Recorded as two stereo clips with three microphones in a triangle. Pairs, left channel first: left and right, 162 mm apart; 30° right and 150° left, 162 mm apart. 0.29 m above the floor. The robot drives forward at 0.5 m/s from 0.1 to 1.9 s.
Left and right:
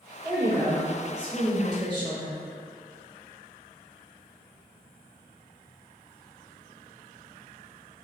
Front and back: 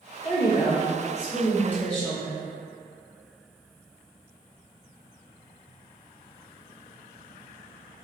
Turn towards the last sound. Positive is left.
turn(degrees=-105)